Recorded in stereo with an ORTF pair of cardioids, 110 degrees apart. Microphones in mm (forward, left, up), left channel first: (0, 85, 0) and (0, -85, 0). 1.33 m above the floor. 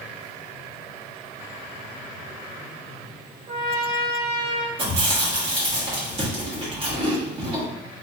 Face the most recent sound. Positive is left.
turn(degrees=-35)